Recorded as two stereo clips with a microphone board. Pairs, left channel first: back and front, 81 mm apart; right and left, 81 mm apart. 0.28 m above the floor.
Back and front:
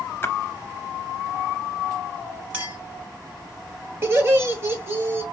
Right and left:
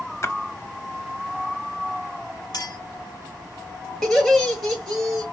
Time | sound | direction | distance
0.2 | a splash | 125° right | 0.7 m
2.5 | a clink | 65° right | 2 m
4.0 | laughter | 10° right | 1.3 m